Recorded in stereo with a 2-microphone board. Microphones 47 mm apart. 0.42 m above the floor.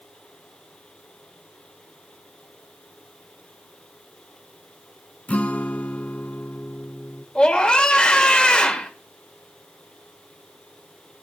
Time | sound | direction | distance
5.3 | a guitar | 30° left (ahead or behind) | 0.9 m
7.3 | a scream | 20° left (ahead or behind) | 1.5 m